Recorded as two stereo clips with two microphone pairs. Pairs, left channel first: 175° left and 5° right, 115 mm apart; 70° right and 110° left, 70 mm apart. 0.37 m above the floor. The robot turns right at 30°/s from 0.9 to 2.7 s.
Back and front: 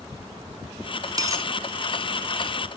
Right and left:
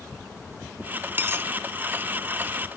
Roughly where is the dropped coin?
Ahead left.